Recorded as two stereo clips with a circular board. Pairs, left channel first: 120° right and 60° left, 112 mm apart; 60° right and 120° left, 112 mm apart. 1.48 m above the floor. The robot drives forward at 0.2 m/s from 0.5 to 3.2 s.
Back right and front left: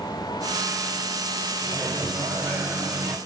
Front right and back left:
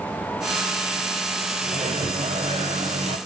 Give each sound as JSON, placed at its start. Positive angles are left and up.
{"t": 1.6, "sound": "a microwave", "azimuth_deg": 120, "distance_m": 0.9}